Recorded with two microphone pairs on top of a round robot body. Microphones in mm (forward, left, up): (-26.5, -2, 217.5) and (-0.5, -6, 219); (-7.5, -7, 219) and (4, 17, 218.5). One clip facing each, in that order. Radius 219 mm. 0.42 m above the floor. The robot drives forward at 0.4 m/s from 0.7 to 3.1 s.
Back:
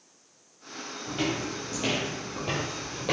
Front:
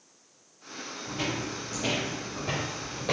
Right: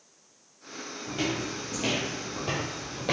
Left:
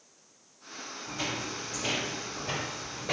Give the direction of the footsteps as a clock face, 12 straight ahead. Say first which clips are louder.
Back 2 dB, right 4 dB; 5 o'clock.